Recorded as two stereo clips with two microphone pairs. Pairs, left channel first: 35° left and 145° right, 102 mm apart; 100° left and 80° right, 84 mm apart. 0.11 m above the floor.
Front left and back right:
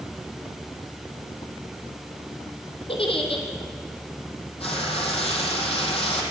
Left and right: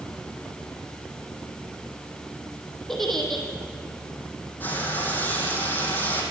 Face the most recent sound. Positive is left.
turn(degrees=30)